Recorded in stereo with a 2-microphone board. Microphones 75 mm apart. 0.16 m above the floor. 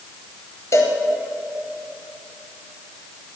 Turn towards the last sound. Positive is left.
turn(degrees=45)  # may be behind; listen again after turning